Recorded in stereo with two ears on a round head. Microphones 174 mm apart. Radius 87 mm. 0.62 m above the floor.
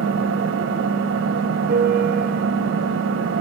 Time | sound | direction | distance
0.0 | an engine running | 70° right (ahead or behind) | 2.5 m
1.7 | a piano | 50° right (ahead or behind) | 4 m